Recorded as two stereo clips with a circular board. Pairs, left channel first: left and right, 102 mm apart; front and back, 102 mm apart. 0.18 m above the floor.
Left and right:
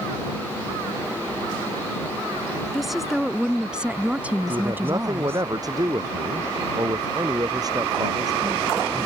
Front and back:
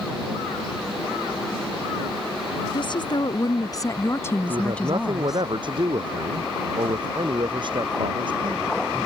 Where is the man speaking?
140° right.